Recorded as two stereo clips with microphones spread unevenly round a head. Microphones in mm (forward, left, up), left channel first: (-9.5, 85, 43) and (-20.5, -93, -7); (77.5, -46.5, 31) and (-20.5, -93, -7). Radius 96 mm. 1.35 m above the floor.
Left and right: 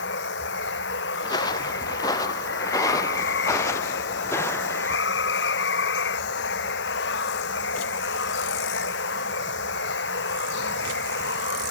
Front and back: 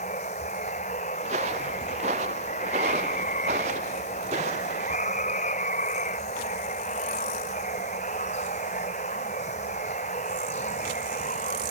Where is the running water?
65° left.